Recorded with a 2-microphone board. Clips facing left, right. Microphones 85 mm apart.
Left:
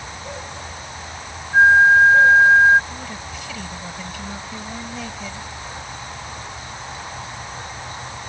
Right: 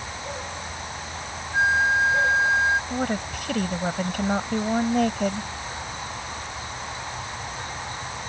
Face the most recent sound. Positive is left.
turn(degrees=-60)  # may be behind; listen again after turning